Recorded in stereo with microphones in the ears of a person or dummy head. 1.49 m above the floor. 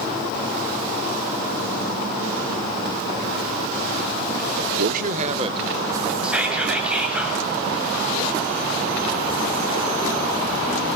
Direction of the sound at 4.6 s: 65° right (ahead or behind).